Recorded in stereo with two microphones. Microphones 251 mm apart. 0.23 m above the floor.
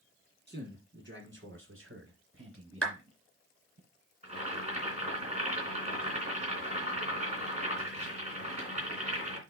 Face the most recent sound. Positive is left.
turn(degrees=-25)  # may be behind; listen again after turning